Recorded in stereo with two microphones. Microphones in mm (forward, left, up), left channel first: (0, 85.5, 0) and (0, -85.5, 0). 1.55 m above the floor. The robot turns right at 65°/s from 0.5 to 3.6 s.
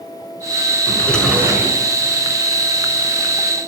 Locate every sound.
0.9 s a drawer: 155° left, 6.5 m; by 1.8 s 145° right, 6.5 m